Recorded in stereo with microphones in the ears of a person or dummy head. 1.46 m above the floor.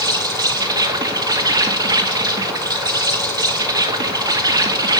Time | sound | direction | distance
0.0 | an insect | 20° right (ahead or behind) | 0.9 m